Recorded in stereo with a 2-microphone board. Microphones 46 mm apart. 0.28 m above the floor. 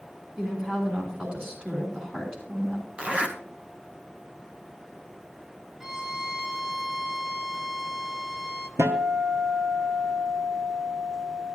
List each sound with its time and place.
0.4 s a woman speaking: 30° right (ahead or behind), 3 m
3.0 s a zipper: 30° right (ahead or behind), 1.1 m
5.8 s a violin: 10° right (ahead or behind), 0.7 m
8.8 s a guitar: 85° right, 1.0 m